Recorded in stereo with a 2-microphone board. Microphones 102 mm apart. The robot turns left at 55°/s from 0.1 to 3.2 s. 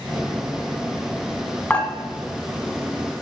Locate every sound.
1.7 s dishes clattering: 15° left (ahead or behind), 0.9 m; by 1.9 s 5° left (ahead or behind), 0.9 m